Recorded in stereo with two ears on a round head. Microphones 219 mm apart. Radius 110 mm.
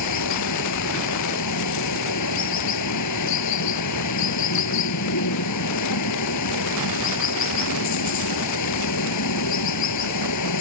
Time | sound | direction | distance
0.0 | running water | 85° left | ?